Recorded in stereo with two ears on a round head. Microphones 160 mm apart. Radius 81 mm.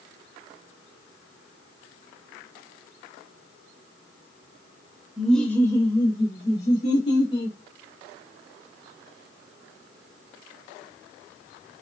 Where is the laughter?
Centre (ahead or behind), 0.8 m; by 7.6 s 45° left (ahead or behind), 2 m.